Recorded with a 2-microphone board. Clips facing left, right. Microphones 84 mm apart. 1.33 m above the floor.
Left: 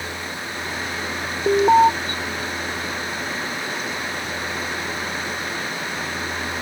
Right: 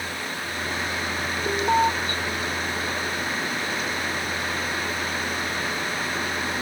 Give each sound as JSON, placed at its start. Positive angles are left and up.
{"t": 1.5, "sound": "an alarm", "side_deg": 30}